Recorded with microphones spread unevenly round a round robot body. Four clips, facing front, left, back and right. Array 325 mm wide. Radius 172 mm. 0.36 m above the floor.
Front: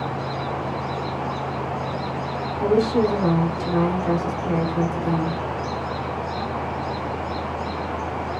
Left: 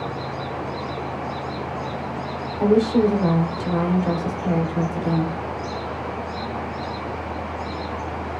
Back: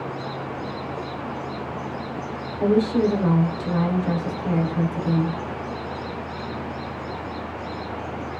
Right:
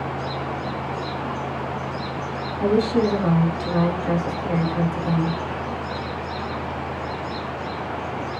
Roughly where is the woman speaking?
Left.